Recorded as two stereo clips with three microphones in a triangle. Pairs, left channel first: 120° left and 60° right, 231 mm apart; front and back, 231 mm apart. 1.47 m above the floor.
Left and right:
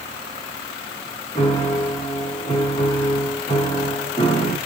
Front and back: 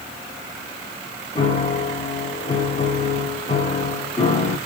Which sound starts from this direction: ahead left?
A piano, at 1.4 s.